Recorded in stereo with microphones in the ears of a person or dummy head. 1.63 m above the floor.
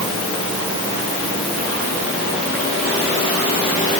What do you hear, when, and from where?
Only background noise.